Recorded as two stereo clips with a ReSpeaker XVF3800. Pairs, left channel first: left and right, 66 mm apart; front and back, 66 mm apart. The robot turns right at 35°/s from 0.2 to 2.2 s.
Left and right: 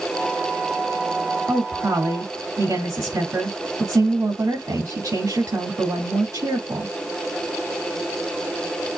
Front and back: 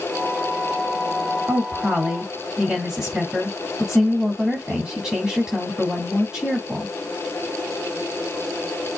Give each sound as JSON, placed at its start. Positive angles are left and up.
{"t": 1.5, "sound": "a woman speaking", "azimuth_deg": -130, "distance_m": 2.5}